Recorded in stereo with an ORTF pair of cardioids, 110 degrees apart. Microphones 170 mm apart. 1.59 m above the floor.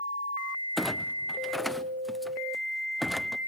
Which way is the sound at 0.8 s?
Straight ahead.